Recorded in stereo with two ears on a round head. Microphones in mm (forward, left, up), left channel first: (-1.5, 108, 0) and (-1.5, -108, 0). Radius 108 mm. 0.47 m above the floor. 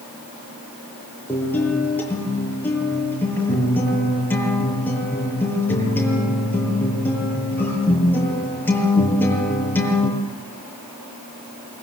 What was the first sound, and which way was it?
A guitar, 10° left (ahead or behind).